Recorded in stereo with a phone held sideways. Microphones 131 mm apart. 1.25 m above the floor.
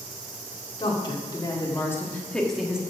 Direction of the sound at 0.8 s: 40° left (ahead or behind).